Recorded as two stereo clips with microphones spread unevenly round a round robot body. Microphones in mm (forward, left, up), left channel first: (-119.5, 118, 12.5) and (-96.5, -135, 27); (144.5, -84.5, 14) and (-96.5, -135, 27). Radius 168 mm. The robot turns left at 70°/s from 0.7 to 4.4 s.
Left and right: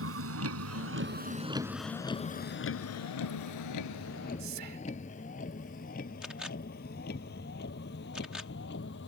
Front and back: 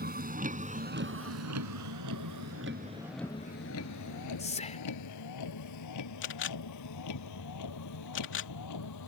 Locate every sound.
0.0 s a vehicle: 120° right; by 9.1 s 35° left
4.4 s whispering: 50° right
6.2 s a camera shutter: 5° left